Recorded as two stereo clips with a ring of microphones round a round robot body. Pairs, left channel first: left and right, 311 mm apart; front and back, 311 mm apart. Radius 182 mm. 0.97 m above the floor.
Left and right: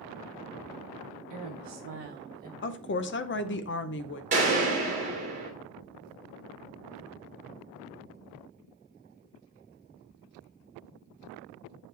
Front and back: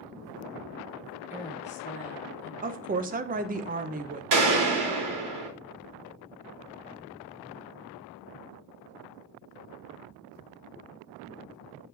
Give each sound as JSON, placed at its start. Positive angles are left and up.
{"t": 1.3, "sound": "a woman speaking", "azimuth_deg": -100, "distance_m": 1.1}
{"t": 2.6, "sound": "a woman speaking", "azimuth_deg": 125, "distance_m": 0.7}
{"t": 4.3, "sound": "a gunshot", "azimuth_deg": -160, "distance_m": 2.5}